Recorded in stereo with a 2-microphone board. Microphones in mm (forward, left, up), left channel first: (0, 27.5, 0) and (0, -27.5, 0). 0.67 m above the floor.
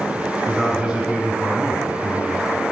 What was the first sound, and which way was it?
A man speaking, 5° right (ahead or behind).